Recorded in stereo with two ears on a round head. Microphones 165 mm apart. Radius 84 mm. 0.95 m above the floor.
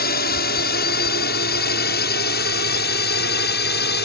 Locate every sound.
0.0 s a drone: 55° left (ahead or behind); by 4.1 s 60° left (ahead or behind)